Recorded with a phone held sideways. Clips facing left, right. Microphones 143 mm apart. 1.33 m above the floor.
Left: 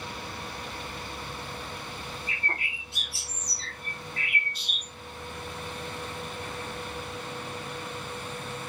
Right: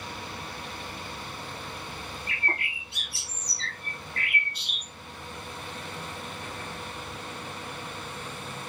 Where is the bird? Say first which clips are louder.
Right 4 dB; 65° right (ahead or behind), 0.9 m.